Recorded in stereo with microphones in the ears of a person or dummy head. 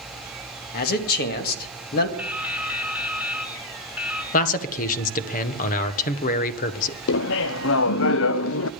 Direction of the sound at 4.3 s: 50° left (ahead or behind).